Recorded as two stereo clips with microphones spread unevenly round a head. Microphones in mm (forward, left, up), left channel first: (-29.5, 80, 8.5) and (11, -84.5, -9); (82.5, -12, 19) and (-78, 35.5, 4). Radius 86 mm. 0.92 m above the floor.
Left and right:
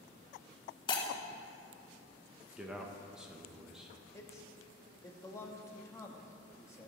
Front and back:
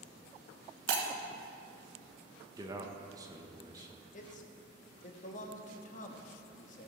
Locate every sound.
0.9 s breaking glass: 160° left, 1.7 m
2.6 s a man speaking: 150° right, 1.1 m
4.1 s a man speaking: 25° left, 1.2 m